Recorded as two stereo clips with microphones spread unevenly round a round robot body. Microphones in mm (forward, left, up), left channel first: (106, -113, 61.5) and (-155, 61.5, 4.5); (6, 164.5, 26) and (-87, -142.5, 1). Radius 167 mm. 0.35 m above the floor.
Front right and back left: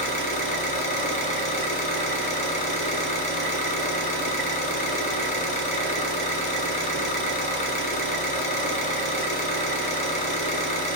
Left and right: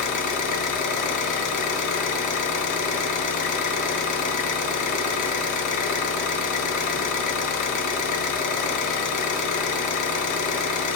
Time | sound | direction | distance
0.0 | an engine running | 40° left | 0.7 m